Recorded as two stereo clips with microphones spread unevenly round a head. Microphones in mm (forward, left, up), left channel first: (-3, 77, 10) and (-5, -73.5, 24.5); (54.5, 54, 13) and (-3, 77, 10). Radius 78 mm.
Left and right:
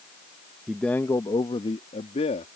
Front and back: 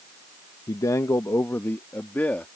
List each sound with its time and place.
0.7 s a man speaking: straight ahead; by 2.5 s 40° left